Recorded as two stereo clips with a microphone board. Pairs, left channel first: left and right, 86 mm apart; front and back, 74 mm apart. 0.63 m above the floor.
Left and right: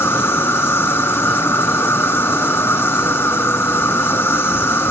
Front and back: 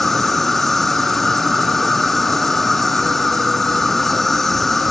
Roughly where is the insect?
Left.